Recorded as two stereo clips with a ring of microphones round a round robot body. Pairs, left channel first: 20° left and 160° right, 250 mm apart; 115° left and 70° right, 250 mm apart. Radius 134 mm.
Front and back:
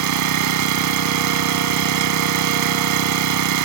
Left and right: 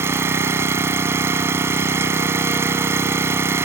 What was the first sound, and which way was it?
An engine running, 150° right.